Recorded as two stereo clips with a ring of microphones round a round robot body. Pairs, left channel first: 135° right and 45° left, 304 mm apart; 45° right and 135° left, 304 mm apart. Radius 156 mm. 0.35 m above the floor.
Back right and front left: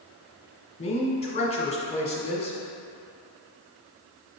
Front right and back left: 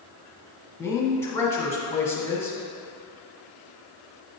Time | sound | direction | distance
0.8 | a woman speaking | 110° right | 1.2 m